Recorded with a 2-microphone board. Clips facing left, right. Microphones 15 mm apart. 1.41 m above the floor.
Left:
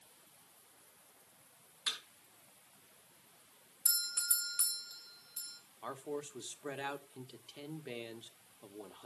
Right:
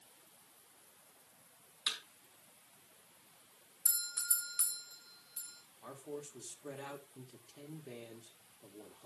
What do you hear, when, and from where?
1.9 s a thud: 80° right, 4.5 m
3.9 s a doorbell: 50° left (ahead or behind), 2 m
5.8 s a man speaking: 80° left, 1.1 m